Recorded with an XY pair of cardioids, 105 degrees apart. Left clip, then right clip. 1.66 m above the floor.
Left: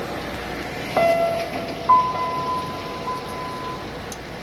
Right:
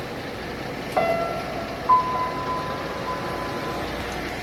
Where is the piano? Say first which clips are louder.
Left 5 dB; 25° left, 1.6 m.